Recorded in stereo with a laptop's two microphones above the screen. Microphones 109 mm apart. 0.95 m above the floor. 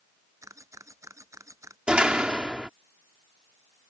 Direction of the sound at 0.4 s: 25° right (ahead or behind).